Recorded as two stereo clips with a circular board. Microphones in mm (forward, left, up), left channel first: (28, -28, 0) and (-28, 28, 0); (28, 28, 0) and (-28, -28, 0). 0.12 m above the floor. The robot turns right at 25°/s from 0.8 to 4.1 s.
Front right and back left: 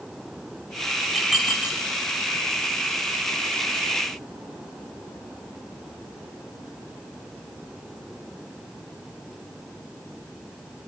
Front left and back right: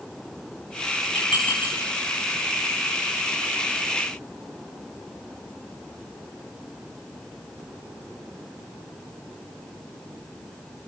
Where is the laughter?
No laughter in this recording.